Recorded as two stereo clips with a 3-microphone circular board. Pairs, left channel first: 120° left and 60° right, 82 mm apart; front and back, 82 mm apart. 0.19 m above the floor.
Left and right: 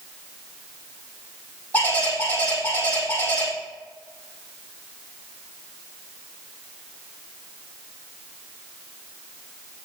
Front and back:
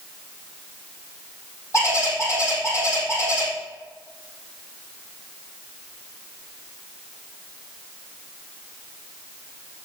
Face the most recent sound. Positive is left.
turn(degrees=55)